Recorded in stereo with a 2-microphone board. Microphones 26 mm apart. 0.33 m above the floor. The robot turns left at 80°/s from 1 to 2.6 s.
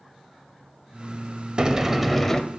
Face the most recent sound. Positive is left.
turn(degrees=140)